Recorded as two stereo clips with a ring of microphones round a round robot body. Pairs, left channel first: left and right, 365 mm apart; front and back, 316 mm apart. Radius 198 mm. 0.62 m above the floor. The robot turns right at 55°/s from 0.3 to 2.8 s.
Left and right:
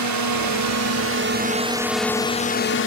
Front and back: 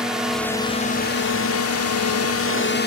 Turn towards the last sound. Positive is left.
turn(degrees=45)